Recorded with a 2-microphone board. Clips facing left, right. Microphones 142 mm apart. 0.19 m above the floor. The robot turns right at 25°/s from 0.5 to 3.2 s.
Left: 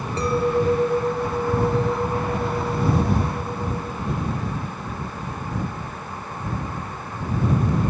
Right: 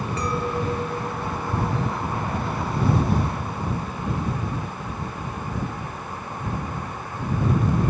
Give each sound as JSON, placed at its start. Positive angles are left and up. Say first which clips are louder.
{"t": 0.2, "sound": "a clink", "louder": "left 8 dB", "azimuth_deg": 35}